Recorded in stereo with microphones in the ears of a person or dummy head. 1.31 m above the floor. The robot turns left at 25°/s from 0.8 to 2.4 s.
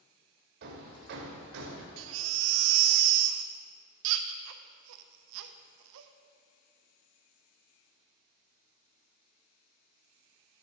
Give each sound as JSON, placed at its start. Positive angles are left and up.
{"t": 0.6, "sound": "hammering", "side_deg": -55, "distance_m": 1.7}
{"t": 2.0, "sound": "a baby crying", "side_deg": -65, "distance_m": 0.7}